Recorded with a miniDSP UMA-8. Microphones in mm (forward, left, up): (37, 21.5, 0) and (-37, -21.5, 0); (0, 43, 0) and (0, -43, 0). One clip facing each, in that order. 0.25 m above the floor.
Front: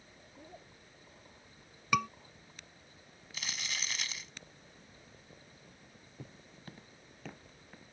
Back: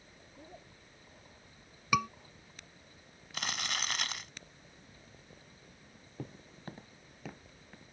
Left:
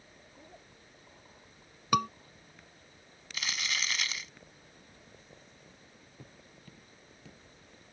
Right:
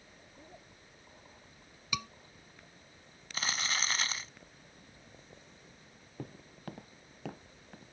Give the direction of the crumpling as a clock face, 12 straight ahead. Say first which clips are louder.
Back 5 dB, right 1 dB; 5 o'clock.